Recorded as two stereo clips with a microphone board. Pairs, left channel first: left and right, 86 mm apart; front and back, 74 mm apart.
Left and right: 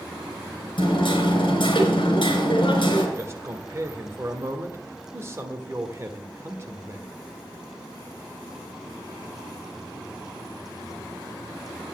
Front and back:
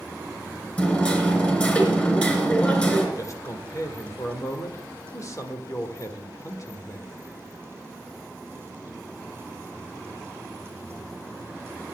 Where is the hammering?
70° left, 3 m.